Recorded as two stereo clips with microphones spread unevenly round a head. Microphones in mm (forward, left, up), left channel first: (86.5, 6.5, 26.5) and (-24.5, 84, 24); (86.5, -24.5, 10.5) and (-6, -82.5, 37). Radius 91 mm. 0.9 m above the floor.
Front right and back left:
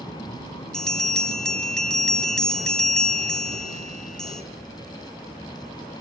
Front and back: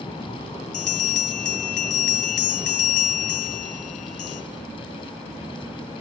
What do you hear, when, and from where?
0.7 s a bell: 50° left, 3 m